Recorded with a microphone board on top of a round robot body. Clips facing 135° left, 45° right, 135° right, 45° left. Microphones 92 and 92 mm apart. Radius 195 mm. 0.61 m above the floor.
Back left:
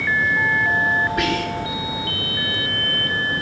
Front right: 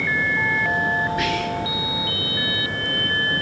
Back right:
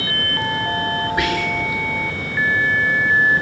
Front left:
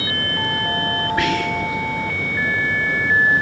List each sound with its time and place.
1.2 s whispering: 150° left, 6 m